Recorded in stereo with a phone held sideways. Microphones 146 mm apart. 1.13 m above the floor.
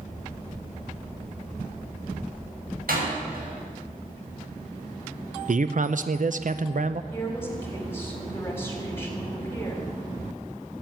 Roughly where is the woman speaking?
Centre.